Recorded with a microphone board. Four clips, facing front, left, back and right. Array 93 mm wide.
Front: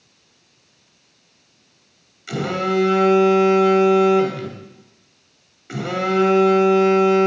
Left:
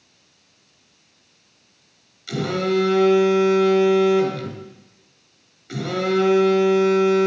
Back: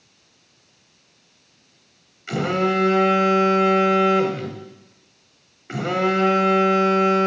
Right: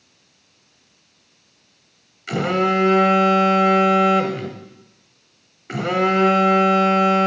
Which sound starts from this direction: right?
A phone buzzing, at 2.3 s.